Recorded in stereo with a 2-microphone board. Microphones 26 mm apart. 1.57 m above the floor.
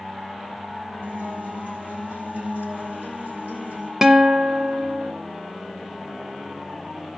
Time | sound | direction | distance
1.0 | a guitar | 85° right | 4.5 m
4.0 | a guitar | 20° right (ahead or behind) | 0.7 m